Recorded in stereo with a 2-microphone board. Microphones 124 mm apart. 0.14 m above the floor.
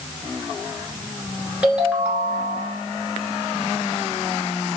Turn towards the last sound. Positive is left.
turn(degrees=-10)  # may be behind; listen again after turning